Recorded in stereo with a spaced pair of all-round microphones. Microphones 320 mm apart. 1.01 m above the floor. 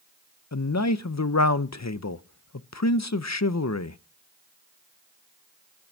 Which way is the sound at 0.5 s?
55° left (ahead or behind).